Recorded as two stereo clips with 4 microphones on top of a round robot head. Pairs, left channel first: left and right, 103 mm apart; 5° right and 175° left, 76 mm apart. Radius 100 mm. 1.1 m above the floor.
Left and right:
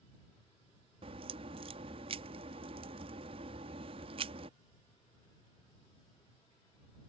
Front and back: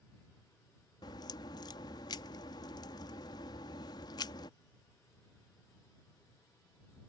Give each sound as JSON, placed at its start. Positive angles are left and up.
{"t": 1.0, "sound": "a crack", "azimuth_deg": -50}